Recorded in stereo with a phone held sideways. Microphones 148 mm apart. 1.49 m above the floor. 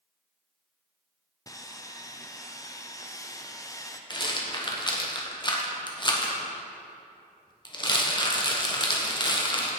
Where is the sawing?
25° left (ahead or behind), 0.6 m.